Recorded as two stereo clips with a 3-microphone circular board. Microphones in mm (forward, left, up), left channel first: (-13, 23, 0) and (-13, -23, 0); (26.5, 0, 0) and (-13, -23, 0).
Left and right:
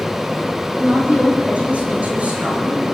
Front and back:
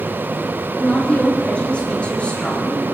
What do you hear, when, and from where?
0.8 s a woman speaking: 35° right, 5.5 m